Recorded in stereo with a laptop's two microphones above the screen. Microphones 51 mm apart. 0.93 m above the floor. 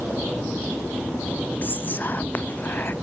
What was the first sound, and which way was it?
Whispering, 40° left (ahead or behind).